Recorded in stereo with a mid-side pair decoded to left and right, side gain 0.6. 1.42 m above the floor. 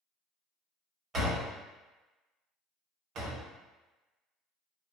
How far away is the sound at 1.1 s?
About 1.8 m.